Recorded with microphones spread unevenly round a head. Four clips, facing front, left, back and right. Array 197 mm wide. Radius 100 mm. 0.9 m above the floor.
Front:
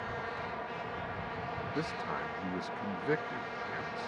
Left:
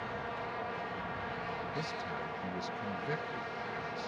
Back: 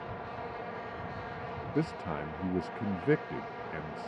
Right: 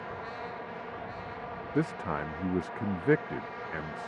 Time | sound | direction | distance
1.8 | a man speaking | 110° right | ?